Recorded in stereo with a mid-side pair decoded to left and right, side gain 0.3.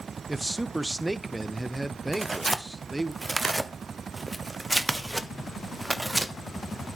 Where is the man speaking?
15° right, 0.7 m.